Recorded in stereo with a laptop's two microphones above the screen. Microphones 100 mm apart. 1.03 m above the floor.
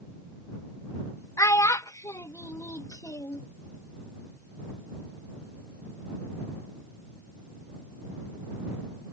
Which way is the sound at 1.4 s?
30° left (ahead or behind).